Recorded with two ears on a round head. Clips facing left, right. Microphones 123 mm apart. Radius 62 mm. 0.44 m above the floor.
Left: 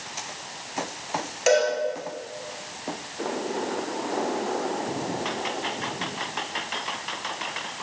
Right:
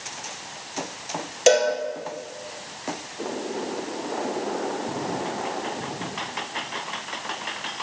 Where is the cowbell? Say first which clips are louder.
Right 3 dB; 35° right (ahead or behind), 1.9 m.